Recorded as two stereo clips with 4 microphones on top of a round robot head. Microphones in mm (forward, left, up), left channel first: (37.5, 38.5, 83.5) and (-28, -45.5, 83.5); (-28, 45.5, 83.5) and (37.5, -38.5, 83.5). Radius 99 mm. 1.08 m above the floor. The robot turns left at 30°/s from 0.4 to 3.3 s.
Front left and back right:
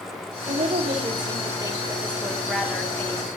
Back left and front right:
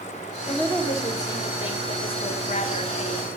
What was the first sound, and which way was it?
A woman speaking, 155° right.